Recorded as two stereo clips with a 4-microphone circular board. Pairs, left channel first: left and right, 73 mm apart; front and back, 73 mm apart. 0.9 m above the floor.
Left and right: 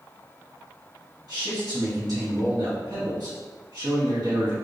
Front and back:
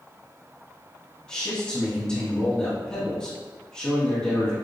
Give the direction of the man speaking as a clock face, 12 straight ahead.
3 o'clock.